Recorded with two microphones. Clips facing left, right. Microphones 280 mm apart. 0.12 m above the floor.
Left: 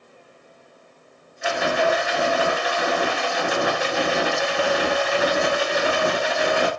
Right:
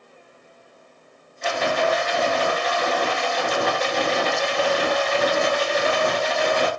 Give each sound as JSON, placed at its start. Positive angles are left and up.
{"t": 1.4, "sound": "a rattle", "side_deg": 10, "distance_m": 0.9}